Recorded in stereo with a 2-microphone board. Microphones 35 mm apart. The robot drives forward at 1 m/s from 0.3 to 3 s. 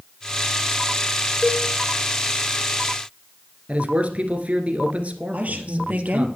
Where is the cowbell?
25° left (ahead or behind), 4 m.